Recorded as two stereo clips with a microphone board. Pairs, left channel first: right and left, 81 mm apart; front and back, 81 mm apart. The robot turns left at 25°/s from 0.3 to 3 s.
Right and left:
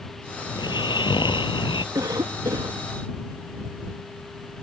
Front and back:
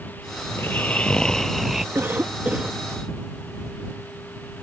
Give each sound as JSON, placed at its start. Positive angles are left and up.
{"t": 0.5, "sound": "snoring", "azimuth_deg": -65}
{"t": 1.9, "sound": "a cough", "azimuth_deg": 125}